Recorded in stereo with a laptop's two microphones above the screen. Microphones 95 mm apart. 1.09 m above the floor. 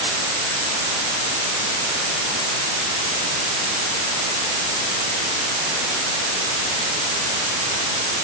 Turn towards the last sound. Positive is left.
No sound to turn to.